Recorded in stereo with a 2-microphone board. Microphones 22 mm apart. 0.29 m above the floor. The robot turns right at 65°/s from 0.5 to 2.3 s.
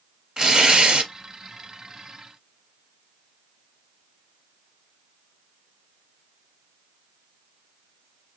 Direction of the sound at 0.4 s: 140° right.